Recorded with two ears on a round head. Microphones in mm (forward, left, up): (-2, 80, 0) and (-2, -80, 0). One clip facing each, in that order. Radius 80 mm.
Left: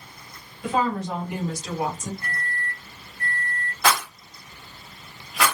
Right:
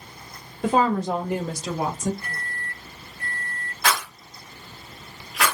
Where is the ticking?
I don't hear ticking.